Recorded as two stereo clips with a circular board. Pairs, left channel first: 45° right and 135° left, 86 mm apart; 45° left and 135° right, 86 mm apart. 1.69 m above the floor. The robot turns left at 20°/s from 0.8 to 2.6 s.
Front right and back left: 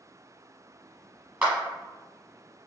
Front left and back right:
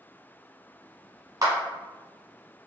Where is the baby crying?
No baby crying in this recording.